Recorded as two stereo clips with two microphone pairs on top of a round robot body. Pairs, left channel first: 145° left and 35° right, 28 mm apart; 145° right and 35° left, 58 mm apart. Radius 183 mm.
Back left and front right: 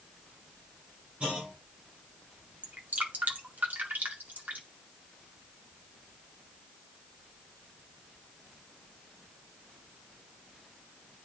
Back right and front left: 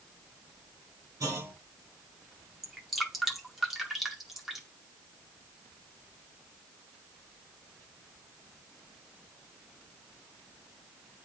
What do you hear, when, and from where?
1.2 s a clunk: 15° left, 3.5 m
2.6 s dripping: 50° right, 2 m